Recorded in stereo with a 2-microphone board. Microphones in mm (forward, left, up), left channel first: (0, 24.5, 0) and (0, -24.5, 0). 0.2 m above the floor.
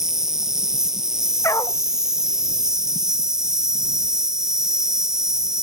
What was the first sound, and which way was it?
An insect, 10° right (ahead or behind).